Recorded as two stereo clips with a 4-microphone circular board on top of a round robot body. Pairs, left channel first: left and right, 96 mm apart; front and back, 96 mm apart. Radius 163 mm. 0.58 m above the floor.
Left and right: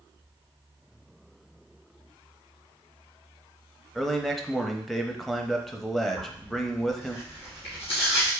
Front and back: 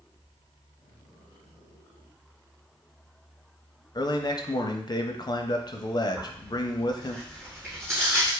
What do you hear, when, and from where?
4.0 s a man speaking: 5° left, 0.8 m
6.2 s tearing paper: 110° left, 2.5 m